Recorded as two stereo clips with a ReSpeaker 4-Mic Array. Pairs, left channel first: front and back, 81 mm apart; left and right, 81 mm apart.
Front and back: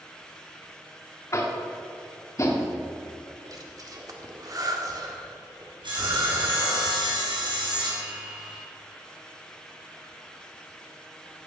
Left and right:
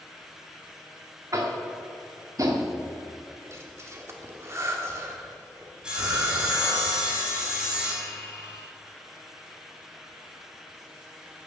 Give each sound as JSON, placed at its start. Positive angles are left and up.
{"t": 1.3, "sound": "tapping", "azimuth_deg": -45, "distance_m": 1.6}
{"t": 3.5, "sound": "breathing", "azimuth_deg": -145, "distance_m": 1.5}
{"t": 5.8, "sound": "sawing", "azimuth_deg": -170, "distance_m": 4.0}